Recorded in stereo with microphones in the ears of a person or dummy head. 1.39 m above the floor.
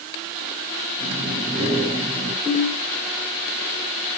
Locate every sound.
1.0 s breathing: 20° right (ahead or behind), 5.5 m
2.5 s a ringtone: centre (ahead or behind), 7.5 m